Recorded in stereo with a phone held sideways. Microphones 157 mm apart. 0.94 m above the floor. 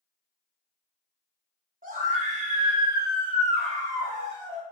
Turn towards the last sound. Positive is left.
turn(degrees=40)  # may be behind; listen again after turning